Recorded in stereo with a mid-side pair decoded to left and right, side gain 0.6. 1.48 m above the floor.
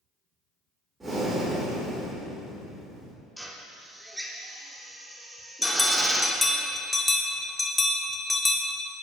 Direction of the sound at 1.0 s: 15° right.